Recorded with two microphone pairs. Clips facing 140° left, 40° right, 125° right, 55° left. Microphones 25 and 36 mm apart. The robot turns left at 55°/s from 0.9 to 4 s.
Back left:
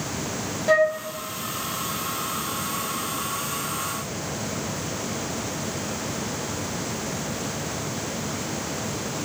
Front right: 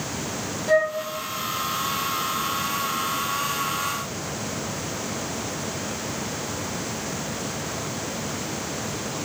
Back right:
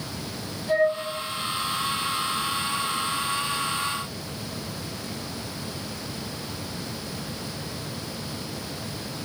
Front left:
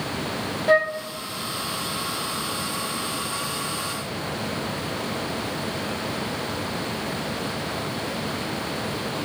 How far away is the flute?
About 0.5 m.